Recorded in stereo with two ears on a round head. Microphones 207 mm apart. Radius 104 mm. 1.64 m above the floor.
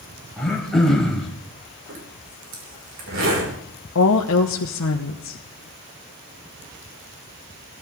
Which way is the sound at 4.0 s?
60° left (ahead or behind).